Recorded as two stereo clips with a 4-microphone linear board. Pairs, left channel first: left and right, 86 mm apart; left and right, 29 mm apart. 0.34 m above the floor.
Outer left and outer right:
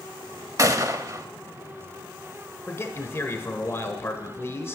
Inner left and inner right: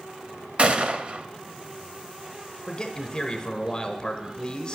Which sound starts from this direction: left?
A man speaking, at 2.7 s.